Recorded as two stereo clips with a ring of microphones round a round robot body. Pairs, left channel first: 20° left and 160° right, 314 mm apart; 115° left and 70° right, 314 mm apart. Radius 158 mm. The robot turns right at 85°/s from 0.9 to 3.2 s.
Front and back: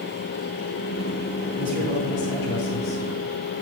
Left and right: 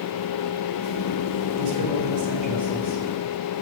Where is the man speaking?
80° right, 4.5 m; by 3.0 s 40° left, 4.5 m.